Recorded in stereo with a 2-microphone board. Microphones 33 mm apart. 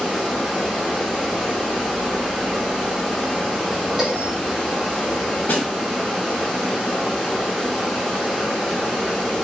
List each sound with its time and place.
0.0 s running water: 15° left (ahead or behind), 1.7 m
4.0 s a bell: centre (ahead or behind), 1.8 m
5.5 s a snare drum: 70° left (ahead or behind), 1.0 m